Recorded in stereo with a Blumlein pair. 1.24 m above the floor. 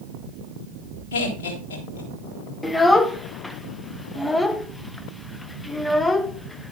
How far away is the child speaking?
About 0.8 m.